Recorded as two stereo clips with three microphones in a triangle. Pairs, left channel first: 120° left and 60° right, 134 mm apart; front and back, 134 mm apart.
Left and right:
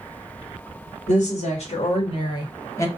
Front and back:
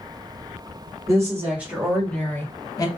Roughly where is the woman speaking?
Behind left.